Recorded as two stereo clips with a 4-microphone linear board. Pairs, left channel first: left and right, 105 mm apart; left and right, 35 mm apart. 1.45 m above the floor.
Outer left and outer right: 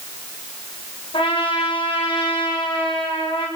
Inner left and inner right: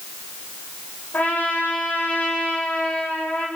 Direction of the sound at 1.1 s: 55° left (ahead or behind).